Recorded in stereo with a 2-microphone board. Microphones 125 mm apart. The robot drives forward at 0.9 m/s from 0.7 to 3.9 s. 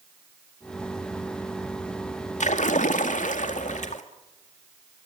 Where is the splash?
70° left (ahead or behind), 2.5 m; by 4.0 s 75° left (ahead or behind), 2 m.